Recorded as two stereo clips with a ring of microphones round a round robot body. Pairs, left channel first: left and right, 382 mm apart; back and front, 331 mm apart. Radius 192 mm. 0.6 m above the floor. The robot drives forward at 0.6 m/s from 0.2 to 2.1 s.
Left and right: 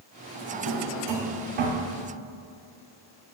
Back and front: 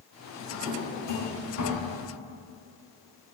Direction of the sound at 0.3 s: 100° right.